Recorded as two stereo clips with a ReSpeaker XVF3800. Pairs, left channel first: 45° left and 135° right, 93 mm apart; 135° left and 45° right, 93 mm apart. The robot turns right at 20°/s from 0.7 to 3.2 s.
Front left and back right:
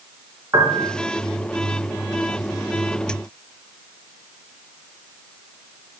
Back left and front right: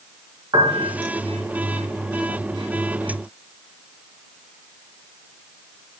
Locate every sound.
0.5 s a piano: 80° right, 2.5 m; by 0.9 s 75° right, 2.5 m